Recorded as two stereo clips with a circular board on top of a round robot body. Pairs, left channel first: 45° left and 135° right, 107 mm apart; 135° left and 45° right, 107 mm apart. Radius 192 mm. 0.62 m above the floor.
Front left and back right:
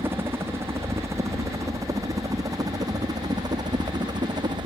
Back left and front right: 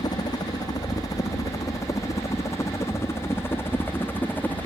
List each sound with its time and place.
0.0 s a helicopter: 165° left; by 4.7 s 155° right